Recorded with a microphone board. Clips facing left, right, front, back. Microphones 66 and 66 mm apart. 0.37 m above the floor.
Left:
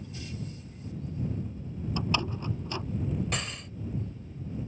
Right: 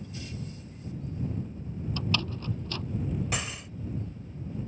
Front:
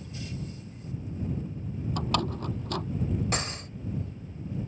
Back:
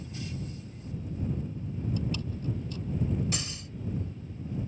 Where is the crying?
No crying in this recording.